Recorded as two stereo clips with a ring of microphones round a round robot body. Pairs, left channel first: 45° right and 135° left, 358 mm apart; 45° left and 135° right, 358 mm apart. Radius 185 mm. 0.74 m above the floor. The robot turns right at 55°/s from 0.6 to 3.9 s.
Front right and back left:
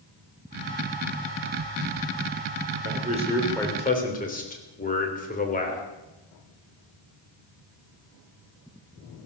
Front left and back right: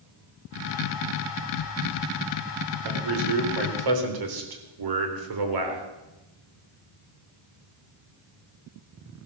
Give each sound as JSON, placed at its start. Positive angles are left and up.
{"t": 2.9, "sound": "a man speaking", "azimuth_deg": -170, "distance_m": 3.5}